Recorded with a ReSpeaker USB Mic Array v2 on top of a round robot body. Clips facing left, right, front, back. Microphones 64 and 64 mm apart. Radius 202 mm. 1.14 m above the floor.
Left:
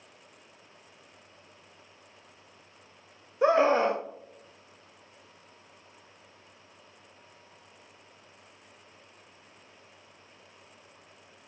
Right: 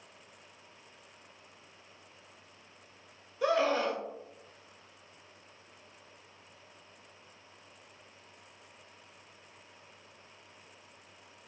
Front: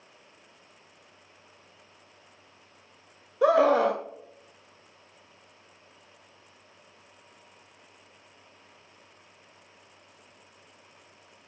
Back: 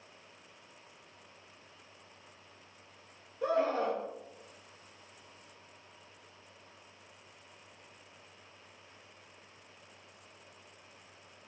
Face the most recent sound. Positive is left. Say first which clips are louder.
# left 6 dB, front 10 dB
turn(degrees=25)